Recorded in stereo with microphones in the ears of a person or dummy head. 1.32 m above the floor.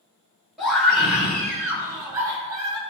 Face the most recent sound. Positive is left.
turn(degrees=-30)  # may be behind; listen again after turning